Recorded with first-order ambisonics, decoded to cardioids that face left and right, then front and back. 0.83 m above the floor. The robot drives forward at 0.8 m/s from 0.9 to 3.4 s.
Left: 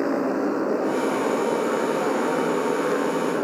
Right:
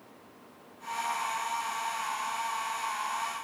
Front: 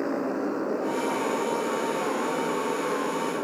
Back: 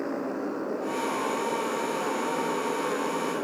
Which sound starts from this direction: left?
A motorcycle, at 0.0 s.